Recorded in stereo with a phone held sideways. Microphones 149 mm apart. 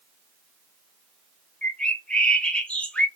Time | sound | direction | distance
1.6 | a bird | 5° left (ahead or behind) | 0.7 m